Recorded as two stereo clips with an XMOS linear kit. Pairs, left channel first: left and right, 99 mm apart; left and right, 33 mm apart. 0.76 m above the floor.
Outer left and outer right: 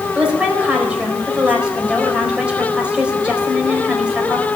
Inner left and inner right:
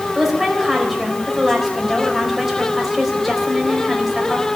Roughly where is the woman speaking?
Centre.